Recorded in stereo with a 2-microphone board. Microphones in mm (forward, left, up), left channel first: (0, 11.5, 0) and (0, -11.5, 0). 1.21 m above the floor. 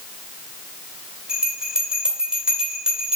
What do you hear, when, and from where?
1.3 s a bell: 35° right (ahead or behind), 3 m